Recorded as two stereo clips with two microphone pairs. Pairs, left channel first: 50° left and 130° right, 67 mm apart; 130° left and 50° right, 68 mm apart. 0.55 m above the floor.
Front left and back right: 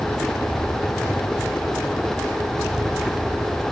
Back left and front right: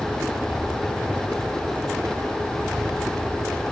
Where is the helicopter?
Straight ahead; by 3.7 s 20° right.